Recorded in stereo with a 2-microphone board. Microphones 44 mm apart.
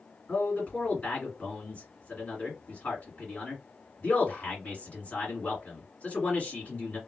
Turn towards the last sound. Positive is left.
turn(degrees=40)  # may be behind; listen again after turning